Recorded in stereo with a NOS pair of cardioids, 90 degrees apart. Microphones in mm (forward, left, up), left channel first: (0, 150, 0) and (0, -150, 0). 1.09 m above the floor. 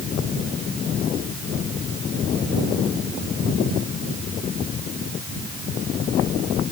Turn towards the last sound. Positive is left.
No sound to turn to.